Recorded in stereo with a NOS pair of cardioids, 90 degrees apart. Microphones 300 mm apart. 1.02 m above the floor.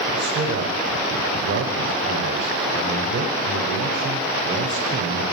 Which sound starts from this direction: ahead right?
A man speaking, at 0.1 s.